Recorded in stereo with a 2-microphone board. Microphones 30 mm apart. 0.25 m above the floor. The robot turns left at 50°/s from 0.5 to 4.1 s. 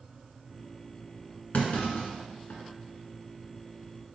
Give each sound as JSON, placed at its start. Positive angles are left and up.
{"t": 1.5, "sound": "a clunk", "side_deg": 55, "distance_m": 1.5}